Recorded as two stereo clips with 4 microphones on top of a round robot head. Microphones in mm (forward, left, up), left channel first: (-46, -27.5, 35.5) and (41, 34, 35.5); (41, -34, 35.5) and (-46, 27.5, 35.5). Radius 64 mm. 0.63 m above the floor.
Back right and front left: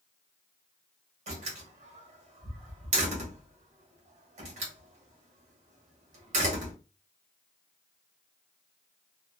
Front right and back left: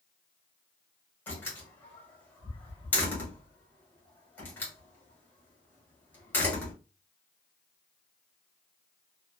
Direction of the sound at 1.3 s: 35° left.